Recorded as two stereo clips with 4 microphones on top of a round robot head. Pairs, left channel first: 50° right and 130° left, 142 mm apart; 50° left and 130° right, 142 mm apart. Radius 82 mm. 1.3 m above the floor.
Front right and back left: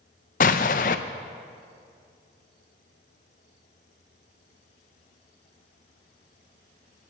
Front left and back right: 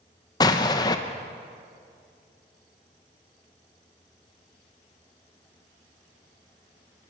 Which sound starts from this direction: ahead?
An explosion, at 0.4 s.